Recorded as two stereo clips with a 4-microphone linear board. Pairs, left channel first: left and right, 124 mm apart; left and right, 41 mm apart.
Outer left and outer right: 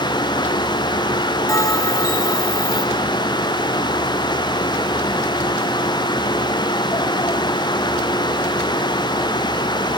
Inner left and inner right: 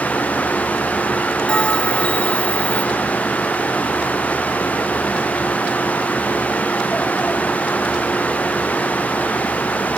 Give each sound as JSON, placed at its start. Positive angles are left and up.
{"t": 1.5, "sound": "a bell", "side_deg": 25, "distance_m": 1.6}